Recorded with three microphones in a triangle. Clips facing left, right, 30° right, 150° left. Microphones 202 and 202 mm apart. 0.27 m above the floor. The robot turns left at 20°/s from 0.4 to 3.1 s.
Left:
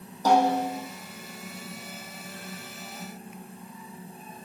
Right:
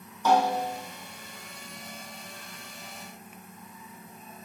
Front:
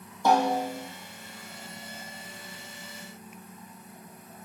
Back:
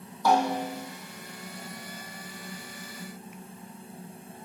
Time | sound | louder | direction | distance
0.2 | a snare drum | left 2 dB, front 1 dB | 35° left | 1.7 m